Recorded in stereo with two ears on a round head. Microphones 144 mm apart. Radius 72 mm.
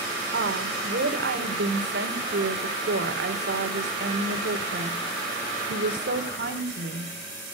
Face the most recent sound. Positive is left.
turn(degrees=-75)  # may be behind; listen again after turning